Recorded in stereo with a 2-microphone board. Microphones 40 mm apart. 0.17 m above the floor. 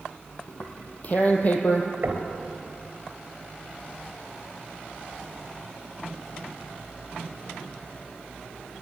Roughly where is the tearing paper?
Left.